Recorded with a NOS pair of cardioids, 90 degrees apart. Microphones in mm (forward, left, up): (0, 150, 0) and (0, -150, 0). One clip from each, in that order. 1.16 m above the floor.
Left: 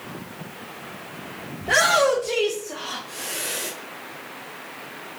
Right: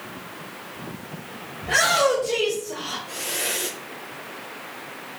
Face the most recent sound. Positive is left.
turn(degrees=-45)